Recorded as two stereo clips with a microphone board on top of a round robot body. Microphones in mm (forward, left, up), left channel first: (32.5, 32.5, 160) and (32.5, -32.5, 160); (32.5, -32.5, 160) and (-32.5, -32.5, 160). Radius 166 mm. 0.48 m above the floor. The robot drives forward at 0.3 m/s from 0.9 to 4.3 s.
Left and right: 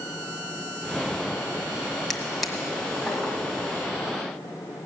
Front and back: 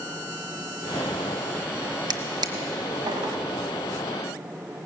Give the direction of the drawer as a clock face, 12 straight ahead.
6 o'clock.